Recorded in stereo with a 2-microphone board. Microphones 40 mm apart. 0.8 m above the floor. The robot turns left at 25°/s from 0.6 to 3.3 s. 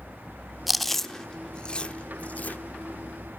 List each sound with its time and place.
0.7 s chewing: centre (ahead or behind), 0.9 m; by 2.6 s 45° left (ahead or behind), 0.9 m